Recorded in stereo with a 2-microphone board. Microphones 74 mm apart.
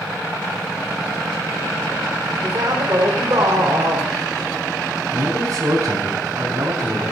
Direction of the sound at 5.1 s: 50° right (ahead or behind).